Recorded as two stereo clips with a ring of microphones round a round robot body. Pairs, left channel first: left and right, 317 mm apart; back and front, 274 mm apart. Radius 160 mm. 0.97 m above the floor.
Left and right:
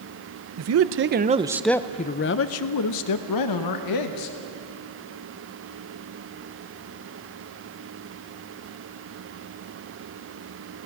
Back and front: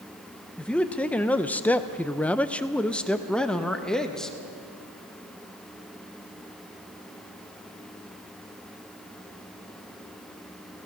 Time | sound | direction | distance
0.6 | a man speaking | 95° right | 0.7 m